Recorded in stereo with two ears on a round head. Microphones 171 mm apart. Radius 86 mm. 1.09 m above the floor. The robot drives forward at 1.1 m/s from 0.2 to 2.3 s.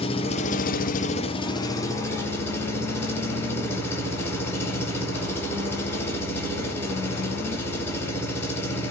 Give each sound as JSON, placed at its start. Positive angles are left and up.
{"t": 0.0, "sound": "an engine running", "side_deg": 30, "distance_m": 0.8}